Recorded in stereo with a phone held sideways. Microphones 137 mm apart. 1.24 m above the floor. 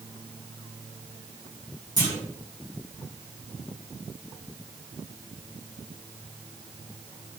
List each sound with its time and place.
2.0 s a clunk: 30° right (ahead or behind), 1.7 m